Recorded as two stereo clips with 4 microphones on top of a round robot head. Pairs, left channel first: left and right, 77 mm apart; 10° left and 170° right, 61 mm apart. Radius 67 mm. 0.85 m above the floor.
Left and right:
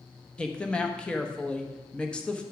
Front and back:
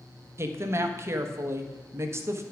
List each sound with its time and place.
0.4 s a woman speaking: 165° left, 1.1 m